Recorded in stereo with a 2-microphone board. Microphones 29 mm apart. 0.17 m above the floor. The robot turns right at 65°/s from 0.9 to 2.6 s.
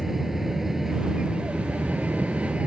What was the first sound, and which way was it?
An aircraft, 165° right.